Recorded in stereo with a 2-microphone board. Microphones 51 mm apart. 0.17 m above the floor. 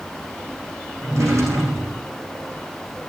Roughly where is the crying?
I don't hear crying.